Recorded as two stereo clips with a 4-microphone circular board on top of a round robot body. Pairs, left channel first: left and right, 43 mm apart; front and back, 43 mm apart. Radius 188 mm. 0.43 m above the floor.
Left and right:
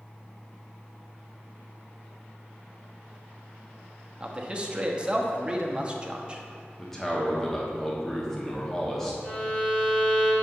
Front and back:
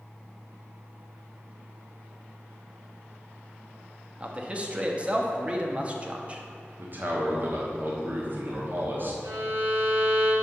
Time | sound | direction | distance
4.2 | a man speaking | 145° right | 1.1 m
6.8 | a man speaking | 165° left | 1.4 m
9.2 | a violin | 155° left | 1.6 m